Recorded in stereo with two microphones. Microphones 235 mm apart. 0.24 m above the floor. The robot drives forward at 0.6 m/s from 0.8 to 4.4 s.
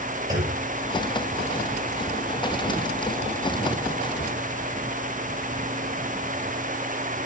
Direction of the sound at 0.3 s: 15° right (ahead or behind).